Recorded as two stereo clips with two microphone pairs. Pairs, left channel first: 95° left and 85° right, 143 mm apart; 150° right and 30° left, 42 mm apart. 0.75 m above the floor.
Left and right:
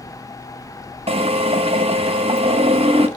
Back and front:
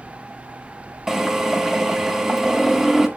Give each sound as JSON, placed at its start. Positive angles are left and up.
{"t": 1.1, "sound": "a drill", "azimuth_deg": -50, "distance_m": 1.2}